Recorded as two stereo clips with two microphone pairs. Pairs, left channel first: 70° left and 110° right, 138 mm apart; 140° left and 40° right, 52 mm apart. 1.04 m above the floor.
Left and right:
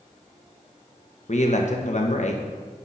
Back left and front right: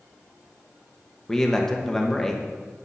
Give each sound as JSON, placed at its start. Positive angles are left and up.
{"t": 1.3, "sound": "a man speaking", "azimuth_deg": 65, "distance_m": 1.2}